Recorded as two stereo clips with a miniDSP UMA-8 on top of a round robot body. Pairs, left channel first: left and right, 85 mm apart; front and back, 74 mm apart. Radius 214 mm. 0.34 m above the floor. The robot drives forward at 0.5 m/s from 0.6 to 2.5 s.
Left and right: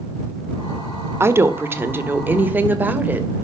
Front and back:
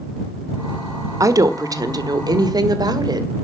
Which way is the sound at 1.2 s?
145° right.